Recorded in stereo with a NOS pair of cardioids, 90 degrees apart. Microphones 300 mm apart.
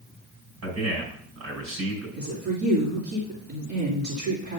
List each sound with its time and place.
0.6 s a man speaking: 60° right, 5 m
2.2 s a woman speaking: 55° right, 3.5 m